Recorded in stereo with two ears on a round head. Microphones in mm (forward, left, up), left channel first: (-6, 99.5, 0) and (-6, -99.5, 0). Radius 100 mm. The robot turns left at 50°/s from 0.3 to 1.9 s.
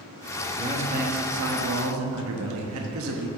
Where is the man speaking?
20° right, 1.1 m; by 3.3 s 90° right, 1.1 m.